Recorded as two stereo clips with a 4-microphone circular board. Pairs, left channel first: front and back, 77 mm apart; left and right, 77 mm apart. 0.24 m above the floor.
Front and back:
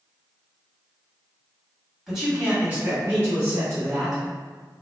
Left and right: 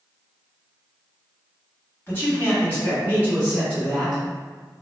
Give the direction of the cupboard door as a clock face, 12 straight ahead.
No cupboard door in this recording.